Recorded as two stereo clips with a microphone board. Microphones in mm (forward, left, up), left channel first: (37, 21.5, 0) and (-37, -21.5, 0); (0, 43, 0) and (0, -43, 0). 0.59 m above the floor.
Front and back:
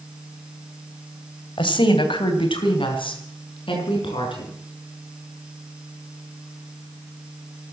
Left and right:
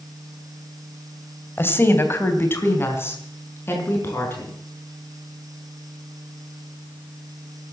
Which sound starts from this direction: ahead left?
A woman speaking, at 1.6 s.